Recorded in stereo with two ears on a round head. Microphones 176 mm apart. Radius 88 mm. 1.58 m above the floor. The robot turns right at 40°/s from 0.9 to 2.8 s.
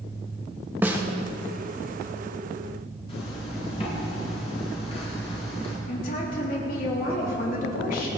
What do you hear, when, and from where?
0.8 s a snare drum: 10° right (ahead or behind), 1.3 m; by 1.0 s 15° right (ahead or behind), 1.3 m
3.1 s a zipper: 30° left (ahead or behind), 5 m
5.9 s a woman speaking: 50° left (ahead or behind), 4 m